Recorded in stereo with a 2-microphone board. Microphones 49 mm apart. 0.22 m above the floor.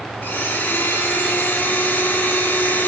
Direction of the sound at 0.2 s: 40° left (ahead or behind).